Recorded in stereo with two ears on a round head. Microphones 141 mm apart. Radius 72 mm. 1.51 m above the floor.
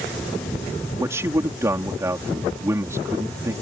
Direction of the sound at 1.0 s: 20° right (ahead or behind).